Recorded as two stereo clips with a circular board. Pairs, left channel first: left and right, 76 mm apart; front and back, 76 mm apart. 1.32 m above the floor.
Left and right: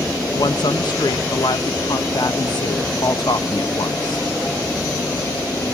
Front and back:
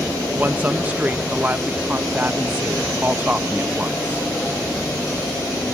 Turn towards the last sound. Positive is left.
turn(degrees=110)